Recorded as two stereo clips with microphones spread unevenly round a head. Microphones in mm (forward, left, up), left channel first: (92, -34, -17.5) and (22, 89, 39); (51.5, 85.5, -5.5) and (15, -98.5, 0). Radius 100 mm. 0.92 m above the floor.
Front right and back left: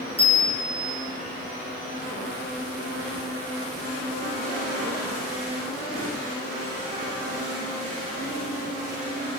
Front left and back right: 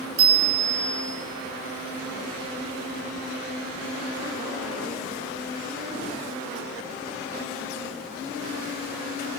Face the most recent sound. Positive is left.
turn(degrees=-150)